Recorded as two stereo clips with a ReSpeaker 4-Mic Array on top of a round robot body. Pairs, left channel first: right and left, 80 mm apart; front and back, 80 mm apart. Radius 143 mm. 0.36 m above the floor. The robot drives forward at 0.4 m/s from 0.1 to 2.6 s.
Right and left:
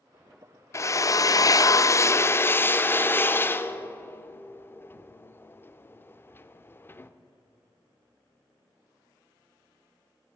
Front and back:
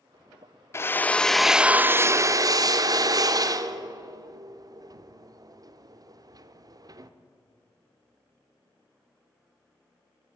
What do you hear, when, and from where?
0.7 s a drill: 50° right, 0.6 m; by 7.1 s 150° right, 0.7 m